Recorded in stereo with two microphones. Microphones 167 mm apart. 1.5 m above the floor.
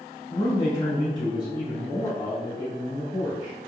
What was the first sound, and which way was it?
A man speaking, 40° left (ahead or behind).